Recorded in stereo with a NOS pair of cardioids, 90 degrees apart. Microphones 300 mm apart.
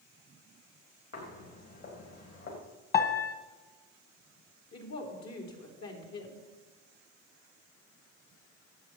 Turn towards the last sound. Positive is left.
turn(degrees=65)